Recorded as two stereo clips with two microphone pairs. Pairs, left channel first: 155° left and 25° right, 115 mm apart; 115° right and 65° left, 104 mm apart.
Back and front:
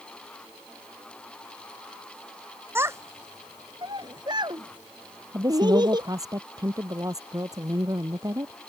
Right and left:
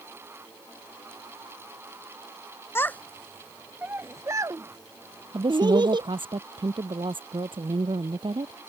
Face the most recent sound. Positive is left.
turn(degrees=30)